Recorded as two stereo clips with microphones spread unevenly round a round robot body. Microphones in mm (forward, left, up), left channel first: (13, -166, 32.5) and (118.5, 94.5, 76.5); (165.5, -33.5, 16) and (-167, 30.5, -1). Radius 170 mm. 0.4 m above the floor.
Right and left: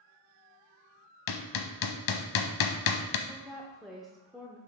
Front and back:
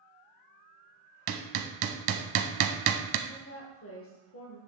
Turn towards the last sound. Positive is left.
turn(degrees=-35)